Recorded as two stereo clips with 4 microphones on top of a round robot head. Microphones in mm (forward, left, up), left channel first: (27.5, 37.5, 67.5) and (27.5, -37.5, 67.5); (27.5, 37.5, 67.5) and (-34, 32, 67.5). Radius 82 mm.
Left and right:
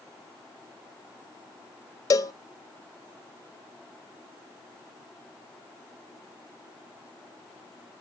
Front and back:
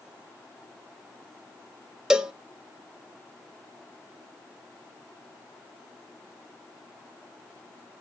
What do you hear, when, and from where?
2.1 s a cowbell: 110° left, 0.7 m